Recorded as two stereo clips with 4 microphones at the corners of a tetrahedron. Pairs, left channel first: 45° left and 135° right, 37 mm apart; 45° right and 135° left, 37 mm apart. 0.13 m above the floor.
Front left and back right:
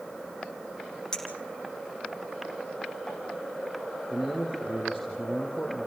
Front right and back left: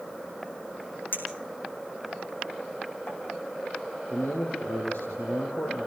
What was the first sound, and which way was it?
A clink, 30° right.